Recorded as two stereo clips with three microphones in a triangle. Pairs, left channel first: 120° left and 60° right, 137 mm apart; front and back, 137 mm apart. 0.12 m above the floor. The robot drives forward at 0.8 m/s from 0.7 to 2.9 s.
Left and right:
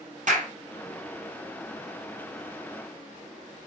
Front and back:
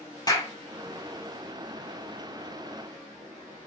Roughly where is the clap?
Ahead right.